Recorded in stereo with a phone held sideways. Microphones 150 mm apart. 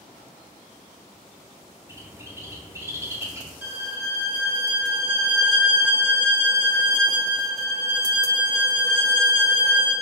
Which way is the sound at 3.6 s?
15° right (ahead or behind).